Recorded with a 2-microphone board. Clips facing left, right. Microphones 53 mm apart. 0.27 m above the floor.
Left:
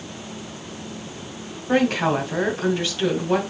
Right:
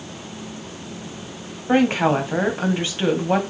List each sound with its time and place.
1.7 s a woman speaking: 30° right (ahead or behind), 2.0 m